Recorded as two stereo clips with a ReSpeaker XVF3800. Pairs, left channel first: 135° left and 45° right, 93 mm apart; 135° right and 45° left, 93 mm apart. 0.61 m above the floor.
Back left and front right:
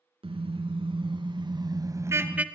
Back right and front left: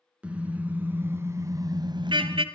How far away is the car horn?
About 2.5 m.